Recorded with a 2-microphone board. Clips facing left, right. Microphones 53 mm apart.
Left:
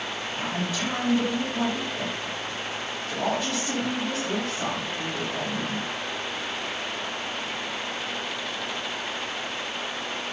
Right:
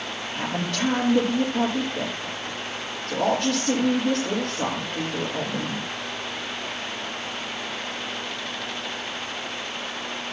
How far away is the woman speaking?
About 7 m.